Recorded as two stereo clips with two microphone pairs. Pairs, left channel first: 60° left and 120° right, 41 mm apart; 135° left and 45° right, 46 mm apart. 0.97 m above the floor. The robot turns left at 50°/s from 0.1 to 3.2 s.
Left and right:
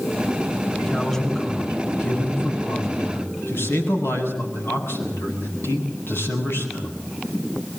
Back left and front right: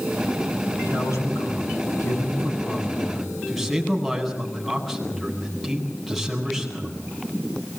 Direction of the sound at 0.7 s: 170° left.